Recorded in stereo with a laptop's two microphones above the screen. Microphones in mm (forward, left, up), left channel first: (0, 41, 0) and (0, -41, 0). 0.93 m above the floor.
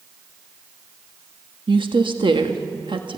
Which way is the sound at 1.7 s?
70° right (ahead or behind).